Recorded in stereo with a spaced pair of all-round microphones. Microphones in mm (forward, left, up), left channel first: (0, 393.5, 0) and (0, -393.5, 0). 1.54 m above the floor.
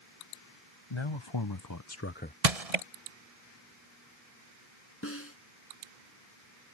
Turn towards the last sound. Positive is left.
turn(degrees=15)  # may be behind; listen again after turning